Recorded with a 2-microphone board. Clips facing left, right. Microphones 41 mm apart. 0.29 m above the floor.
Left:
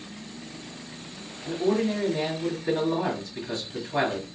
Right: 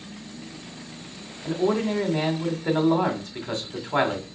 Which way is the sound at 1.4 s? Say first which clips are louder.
Right 1 dB; 55° right (ahead or behind).